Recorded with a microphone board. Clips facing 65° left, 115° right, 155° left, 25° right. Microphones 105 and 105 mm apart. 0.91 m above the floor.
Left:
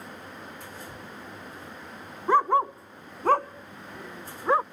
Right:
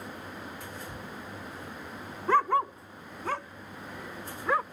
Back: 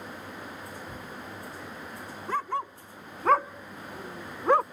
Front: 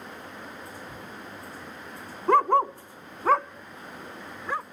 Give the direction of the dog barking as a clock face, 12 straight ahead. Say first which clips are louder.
Left 3 dB, front 11 dB; 12 o'clock.